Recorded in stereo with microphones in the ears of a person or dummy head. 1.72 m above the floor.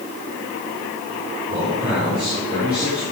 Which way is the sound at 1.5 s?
25° right (ahead or behind).